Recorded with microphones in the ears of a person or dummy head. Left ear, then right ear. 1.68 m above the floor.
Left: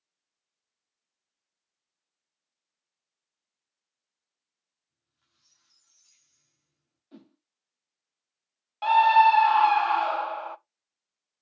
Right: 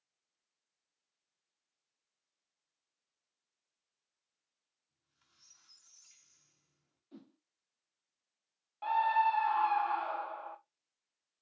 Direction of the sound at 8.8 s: 80° left.